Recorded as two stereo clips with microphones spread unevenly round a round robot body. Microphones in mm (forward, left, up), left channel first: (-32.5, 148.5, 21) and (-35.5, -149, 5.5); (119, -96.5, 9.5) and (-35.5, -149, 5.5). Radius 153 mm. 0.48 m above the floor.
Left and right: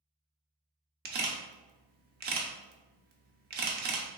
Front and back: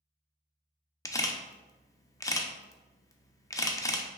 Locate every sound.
1.1 s a camera shutter: 50° right, 0.5 m